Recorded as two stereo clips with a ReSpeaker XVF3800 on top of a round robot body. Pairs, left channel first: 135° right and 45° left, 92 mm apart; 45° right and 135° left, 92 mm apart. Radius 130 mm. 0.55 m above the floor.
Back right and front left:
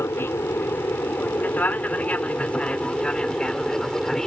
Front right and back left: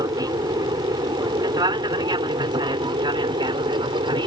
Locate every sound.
0.0 s an aircraft: 165° left; by 4.3 s 140° left